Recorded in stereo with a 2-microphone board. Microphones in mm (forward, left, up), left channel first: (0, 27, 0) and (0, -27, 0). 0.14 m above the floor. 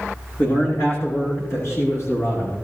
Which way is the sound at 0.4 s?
45° left (ahead or behind).